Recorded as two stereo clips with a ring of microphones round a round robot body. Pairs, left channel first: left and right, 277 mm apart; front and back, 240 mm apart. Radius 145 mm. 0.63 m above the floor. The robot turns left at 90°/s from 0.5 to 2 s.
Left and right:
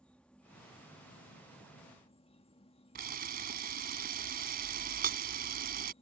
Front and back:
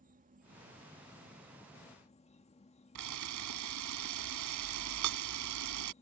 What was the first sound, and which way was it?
An insect, 175° left.